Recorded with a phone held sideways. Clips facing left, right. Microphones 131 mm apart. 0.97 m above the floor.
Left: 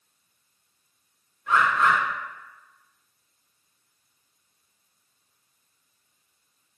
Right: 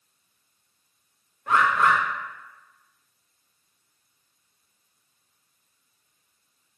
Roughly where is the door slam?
I don't hear a door slam.